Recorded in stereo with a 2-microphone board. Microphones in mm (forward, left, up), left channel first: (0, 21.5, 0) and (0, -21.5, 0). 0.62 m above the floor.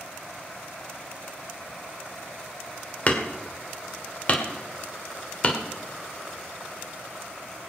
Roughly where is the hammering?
Left.